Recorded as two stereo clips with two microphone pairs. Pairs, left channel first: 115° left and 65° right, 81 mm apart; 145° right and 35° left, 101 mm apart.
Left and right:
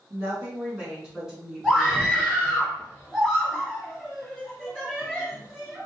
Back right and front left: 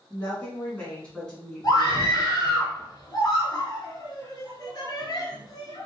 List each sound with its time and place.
0.1 s a woman speaking: 90° right, 1.6 m; by 2.6 s 110° left, 1.4 m
1.6 s a scream: 145° right, 1.4 m